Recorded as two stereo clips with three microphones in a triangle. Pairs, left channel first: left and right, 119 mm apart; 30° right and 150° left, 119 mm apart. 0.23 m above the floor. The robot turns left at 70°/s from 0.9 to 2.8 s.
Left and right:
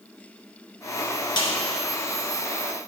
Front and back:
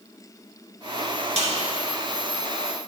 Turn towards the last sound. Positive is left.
turn(degrees=35)